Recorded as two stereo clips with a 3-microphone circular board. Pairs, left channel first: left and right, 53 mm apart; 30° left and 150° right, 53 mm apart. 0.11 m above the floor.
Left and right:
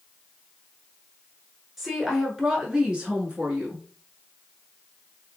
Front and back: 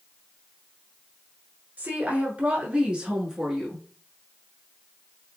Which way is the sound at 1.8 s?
170° right.